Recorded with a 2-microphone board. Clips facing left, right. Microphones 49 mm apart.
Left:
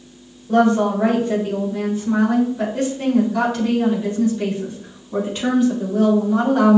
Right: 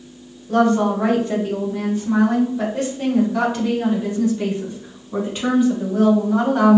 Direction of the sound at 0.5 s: 5° left (ahead or behind).